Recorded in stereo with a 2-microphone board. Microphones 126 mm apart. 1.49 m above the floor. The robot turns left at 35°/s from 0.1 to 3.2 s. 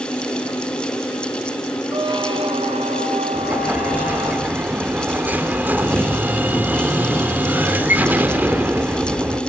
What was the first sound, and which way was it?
A squeak, 35° right.